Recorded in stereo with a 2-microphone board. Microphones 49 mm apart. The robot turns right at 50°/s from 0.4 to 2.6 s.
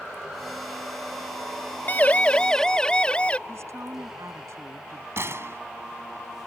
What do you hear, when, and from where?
1.9 s a siren: 40° left (ahead or behind); by 3.4 s 25° left (ahead or behind)
3.5 s a woman speaking: 70° right (ahead or behind)
5.2 s a gunshot: 65° right (ahead or behind)